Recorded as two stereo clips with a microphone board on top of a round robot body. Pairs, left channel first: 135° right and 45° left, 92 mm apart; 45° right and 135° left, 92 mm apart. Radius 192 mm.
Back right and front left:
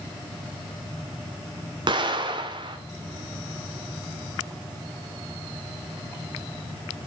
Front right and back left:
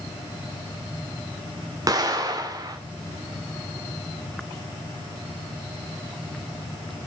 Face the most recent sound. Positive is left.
turn(degrees=85)